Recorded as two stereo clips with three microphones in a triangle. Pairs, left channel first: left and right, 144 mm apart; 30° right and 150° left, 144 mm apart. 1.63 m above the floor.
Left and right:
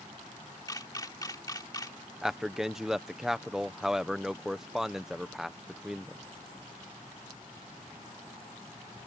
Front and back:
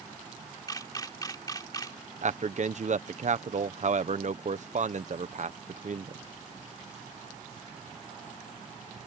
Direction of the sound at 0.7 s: 30° left.